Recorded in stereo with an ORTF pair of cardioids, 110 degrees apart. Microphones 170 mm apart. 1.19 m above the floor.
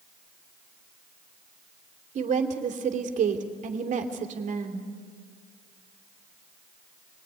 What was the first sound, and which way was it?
A woman speaking, 50° right.